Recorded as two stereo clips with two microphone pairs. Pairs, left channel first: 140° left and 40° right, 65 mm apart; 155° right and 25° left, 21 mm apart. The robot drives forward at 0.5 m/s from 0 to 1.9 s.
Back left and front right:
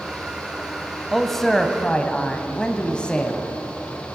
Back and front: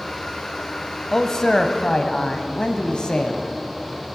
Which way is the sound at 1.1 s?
120° right.